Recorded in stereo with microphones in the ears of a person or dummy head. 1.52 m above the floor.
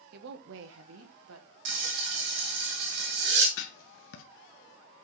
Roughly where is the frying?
Right.